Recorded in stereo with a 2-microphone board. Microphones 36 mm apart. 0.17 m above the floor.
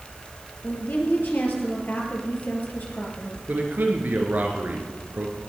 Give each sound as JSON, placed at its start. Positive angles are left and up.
{"t": 0.6, "sound": "a woman speaking", "side_deg": 65, "distance_m": 3.5}
{"t": 3.5, "sound": "a man speaking", "side_deg": -65, "distance_m": 2.5}